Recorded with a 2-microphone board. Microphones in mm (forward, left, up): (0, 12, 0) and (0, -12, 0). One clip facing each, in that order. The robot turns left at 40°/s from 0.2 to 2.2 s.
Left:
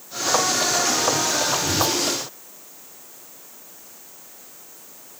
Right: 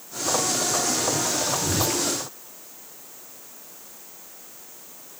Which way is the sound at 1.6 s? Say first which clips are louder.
Left 3 dB; 40° right (ahead or behind).